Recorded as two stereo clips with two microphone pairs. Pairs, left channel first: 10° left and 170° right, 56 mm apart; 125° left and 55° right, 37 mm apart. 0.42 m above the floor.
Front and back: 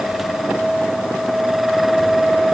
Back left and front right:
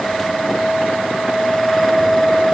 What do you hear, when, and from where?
Only background noise.